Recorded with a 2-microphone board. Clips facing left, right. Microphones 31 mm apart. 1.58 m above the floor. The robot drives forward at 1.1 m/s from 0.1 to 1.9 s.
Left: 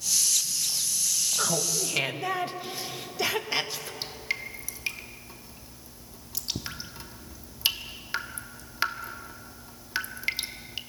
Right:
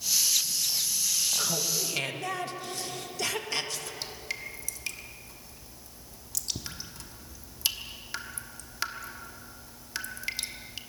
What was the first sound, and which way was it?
Laughter, 25° left (ahead or behind).